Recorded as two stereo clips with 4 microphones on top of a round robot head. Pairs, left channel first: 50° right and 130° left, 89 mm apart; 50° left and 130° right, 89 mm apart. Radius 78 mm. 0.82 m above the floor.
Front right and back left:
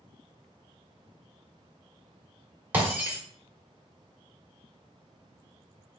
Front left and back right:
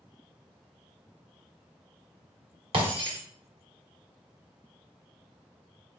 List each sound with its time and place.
2.7 s breaking glass: 160° right, 1.5 m